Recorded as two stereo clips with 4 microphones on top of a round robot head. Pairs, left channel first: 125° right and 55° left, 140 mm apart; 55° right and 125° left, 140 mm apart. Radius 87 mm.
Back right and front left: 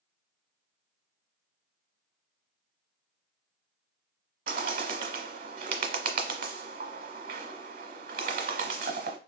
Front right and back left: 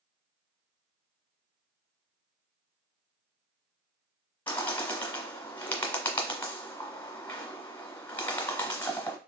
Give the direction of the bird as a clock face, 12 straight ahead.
11 o'clock.